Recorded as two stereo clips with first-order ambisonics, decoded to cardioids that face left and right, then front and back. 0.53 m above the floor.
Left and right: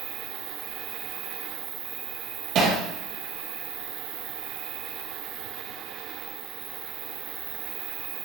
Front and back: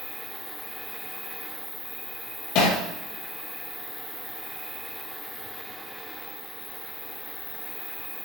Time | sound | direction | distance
0.0 | an insect | 80° right | 3 m
2.5 | hammering | 35° right | 5 m